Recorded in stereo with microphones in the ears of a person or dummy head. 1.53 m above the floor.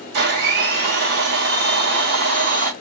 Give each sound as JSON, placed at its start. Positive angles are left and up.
{"t": 0.1, "sound": "a blender", "side_deg": -70, "distance_m": 1.8}